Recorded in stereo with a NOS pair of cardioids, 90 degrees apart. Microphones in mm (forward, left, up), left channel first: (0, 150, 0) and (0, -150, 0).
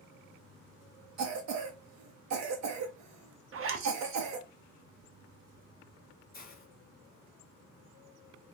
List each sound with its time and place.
1.2 s a cough: 55° right, 0.8 m
3.5 s a zipper: 45° right, 0.7 m
6.3 s a hiss: 30° left, 1.3 m